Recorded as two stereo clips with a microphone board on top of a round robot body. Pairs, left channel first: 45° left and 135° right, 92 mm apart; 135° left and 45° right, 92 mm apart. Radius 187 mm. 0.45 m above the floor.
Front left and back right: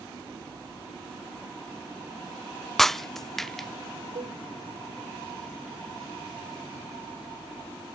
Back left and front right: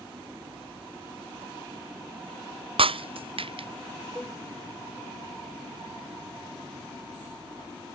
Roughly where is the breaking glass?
Ahead right.